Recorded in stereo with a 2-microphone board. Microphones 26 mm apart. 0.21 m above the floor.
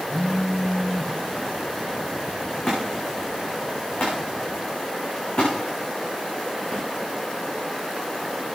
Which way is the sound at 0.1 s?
80° left.